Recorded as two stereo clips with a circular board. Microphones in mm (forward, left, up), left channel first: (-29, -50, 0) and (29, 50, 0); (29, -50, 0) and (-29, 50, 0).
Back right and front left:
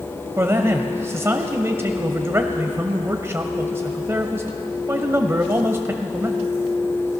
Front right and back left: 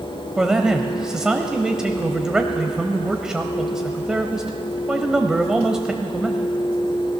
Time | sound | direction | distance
0.4 | a man speaking | 45° left | 0.9 m